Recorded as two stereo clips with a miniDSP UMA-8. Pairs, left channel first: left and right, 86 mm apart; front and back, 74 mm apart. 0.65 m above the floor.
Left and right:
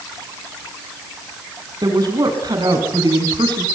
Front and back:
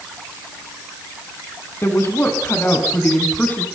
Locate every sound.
1.8 s a woman speaking: 55° right, 5 m; by 3.6 s 65° right, 5.5 m